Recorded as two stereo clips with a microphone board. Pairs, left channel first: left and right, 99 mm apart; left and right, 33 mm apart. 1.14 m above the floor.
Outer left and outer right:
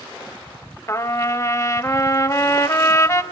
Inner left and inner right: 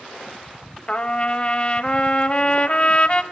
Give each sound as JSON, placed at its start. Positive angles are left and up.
{"t": 0.9, "sound": "a trumpet", "side_deg": 30, "distance_m": 0.8}